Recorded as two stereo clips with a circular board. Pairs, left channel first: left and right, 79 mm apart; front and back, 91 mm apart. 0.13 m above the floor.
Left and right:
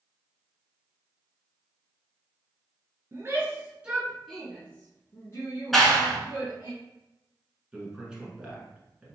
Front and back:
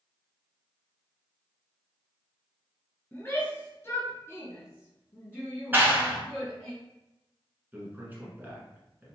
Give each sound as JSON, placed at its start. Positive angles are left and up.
{"t": 3.1, "sound": "a shout", "azimuth_deg": -60, "distance_m": 1.6}
{"t": 5.7, "sound": "a clap", "azimuth_deg": 175, "distance_m": 1.0}
{"t": 7.7, "sound": "a man speaking", "azimuth_deg": -150, "distance_m": 1.2}